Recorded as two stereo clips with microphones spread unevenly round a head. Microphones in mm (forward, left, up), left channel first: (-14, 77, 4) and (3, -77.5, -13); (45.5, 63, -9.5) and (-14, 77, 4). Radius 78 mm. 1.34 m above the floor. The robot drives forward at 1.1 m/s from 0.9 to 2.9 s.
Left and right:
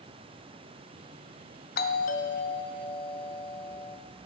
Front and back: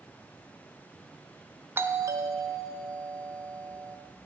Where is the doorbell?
110° left, 0.8 m; by 4.0 s 160° left, 1.6 m.